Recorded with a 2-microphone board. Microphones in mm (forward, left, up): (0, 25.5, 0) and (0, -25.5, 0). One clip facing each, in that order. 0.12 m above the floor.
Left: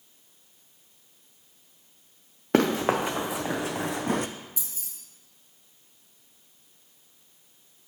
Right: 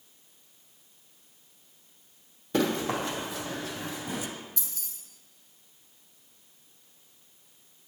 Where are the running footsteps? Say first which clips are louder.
Left 5 dB; 60° left (ahead or behind), 0.9 m; by 4.3 s 55° left (ahead or behind), 0.5 m.